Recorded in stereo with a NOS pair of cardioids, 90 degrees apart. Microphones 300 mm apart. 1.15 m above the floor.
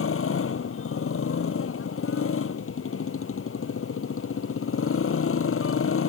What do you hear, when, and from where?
0.0 s a motorcycle: 45° left